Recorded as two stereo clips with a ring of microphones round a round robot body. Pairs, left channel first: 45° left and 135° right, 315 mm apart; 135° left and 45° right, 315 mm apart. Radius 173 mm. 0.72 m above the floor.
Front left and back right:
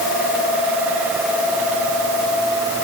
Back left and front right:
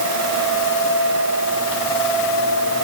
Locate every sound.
Only background noise.